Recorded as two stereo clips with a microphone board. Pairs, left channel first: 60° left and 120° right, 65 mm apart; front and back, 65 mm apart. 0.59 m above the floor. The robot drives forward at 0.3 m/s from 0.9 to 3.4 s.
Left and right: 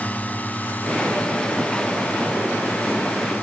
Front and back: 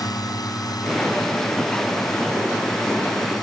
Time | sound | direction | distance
0.0 | a drone | 5° right | ?